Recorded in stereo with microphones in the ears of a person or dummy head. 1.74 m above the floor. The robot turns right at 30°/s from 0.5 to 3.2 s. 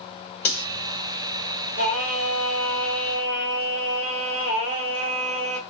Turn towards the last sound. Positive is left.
turn(degrees=-40)